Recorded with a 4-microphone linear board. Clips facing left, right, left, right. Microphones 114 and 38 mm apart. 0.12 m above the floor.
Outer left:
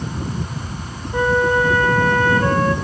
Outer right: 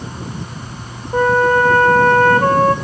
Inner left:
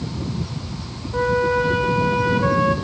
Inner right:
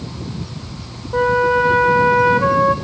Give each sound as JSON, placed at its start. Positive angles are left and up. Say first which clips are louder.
{"t": 1.1, "sound": "a flute", "louder": "outer right 4 dB, inner right 4 dB", "side_deg": -50, "distance_m": 2.0}